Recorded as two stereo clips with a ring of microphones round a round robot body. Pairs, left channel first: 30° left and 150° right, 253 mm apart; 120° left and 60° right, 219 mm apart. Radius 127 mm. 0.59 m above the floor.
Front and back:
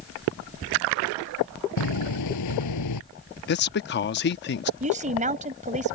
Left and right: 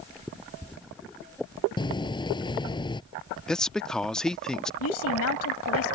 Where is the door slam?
50° left.